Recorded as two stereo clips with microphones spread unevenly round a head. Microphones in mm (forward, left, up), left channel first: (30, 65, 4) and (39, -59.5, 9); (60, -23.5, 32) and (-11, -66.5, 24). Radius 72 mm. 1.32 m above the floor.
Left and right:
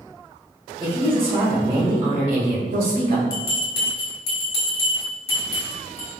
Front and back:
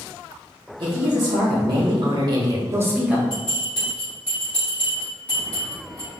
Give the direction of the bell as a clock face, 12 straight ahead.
8 o'clock.